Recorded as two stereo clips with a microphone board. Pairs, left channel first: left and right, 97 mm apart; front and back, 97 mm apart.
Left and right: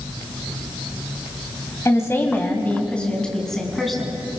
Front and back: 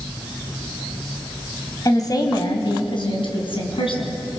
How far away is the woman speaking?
About 2.5 m.